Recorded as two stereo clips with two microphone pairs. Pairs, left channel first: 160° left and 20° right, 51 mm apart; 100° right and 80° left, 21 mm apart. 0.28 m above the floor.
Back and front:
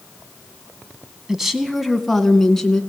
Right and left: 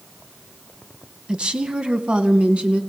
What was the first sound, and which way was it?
A woman speaking, 55° left.